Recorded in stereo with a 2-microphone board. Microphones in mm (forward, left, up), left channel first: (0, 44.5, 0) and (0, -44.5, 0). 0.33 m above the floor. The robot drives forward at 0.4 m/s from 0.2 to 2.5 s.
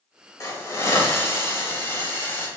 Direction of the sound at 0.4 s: 35° left (ahead or behind).